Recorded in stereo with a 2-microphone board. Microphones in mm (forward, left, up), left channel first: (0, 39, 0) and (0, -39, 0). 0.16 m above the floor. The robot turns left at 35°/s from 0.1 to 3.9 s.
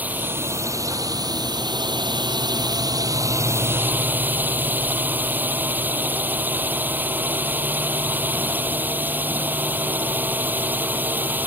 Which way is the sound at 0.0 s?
20° right.